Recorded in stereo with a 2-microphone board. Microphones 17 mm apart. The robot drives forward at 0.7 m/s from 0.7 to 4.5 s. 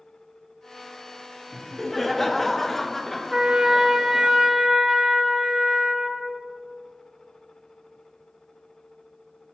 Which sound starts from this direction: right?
A trumpet, at 3.3 s.